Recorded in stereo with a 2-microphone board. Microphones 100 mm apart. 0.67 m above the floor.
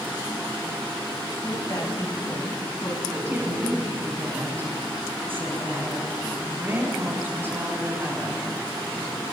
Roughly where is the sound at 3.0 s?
Right.